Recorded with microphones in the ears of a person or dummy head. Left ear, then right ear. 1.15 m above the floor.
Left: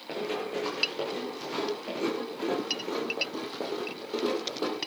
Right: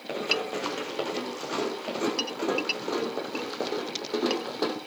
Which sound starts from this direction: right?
Running footsteps, at 0.1 s.